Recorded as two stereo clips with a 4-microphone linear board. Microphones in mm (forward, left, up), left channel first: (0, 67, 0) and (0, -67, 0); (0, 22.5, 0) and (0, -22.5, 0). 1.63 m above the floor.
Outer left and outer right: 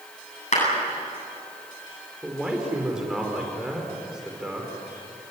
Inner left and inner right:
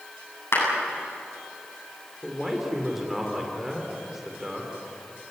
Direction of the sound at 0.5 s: 70° left (ahead or behind).